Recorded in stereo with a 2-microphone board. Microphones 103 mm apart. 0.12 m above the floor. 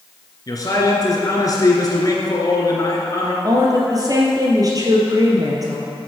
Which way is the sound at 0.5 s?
35° left (ahead or behind).